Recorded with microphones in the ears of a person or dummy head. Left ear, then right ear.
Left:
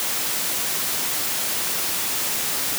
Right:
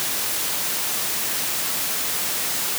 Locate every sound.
Only background noise.